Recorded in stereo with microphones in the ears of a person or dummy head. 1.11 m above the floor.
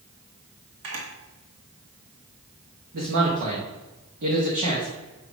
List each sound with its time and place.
0.8 s a camera shutter: 75° right (ahead or behind), 1.8 m
2.9 s a man speaking: 55° right (ahead or behind), 1.5 m